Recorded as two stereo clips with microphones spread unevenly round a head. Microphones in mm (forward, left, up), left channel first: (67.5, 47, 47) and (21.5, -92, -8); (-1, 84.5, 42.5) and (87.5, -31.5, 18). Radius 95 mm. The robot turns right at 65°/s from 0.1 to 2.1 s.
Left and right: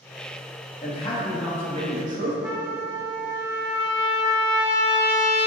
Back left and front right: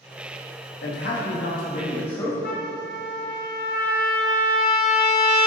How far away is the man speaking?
About 1.6 m.